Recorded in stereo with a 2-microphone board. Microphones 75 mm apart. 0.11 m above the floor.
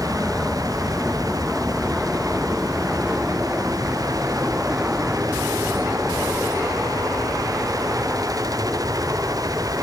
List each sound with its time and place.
0.0 s an aircraft: centre (ahead or behind); by 9.8 s 25° right (ahead or behind)